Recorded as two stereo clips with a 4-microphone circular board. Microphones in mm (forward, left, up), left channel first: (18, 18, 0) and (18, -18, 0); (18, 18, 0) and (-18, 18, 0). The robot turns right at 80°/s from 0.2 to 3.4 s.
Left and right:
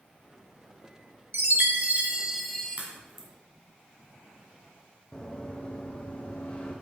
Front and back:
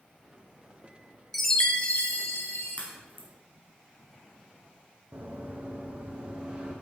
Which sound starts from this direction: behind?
Running footsteps, at 5.1 s.